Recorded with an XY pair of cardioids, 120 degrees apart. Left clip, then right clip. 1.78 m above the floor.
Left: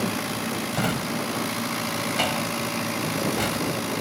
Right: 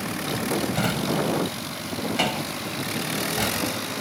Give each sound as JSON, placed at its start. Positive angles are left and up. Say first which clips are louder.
{"t": 0.7, "sound": "a drawer", "louder": "right 2 dB", "azimuth_deg": -10}